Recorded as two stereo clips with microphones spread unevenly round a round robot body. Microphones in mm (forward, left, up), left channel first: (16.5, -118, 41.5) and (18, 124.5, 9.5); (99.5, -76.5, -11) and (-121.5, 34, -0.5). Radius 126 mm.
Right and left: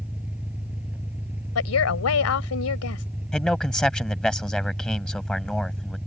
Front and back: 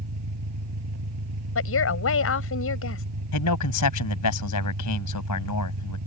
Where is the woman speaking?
60° right.